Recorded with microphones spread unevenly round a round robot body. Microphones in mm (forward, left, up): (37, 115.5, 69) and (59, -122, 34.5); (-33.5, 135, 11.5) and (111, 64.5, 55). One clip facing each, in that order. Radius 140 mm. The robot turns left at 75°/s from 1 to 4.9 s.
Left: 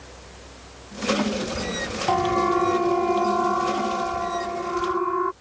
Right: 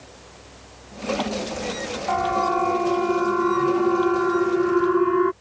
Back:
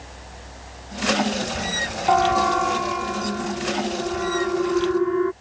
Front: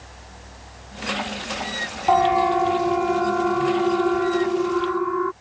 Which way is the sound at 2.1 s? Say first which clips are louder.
Left 4 dB, front 1 dB; 65° left.